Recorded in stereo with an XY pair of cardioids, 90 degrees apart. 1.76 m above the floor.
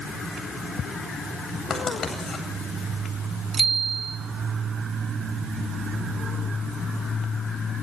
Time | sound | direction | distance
1.7 | writing | 45° left | 9 m
3.5 | a bicycle bell | 45° right | 2.5 m